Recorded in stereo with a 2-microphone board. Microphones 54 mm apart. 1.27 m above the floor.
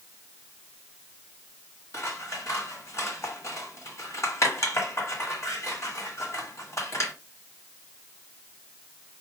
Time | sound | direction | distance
1.9 | scissors | 70° left (ahead or behind) | 1.7 m